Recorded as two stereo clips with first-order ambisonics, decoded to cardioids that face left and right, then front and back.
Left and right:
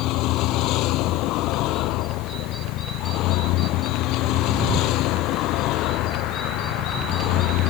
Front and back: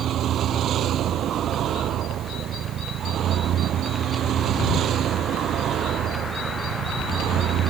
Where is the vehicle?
125° left.